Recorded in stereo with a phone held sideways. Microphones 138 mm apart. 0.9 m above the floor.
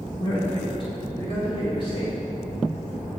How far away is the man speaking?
About 1.0 m.